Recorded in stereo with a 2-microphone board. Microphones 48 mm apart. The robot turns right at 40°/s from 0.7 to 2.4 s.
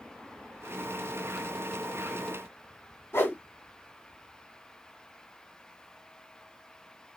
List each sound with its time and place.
3.1 s a whoosh: 55° left (ahead or behind), 2 m